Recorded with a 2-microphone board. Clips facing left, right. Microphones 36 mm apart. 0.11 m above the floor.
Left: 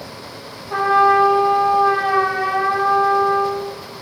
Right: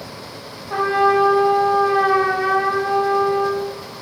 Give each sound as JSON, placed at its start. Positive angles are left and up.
{"t": 0.7, "sound": "a trumpet", "side_deg": -15, "distance_m": 4.5}